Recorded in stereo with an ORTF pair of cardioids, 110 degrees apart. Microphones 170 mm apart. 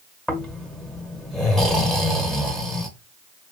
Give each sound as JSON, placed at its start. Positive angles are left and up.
{"t": 0.3, "sound": "snoring", "azimuth_deg": 5, "distance_m": 1.0}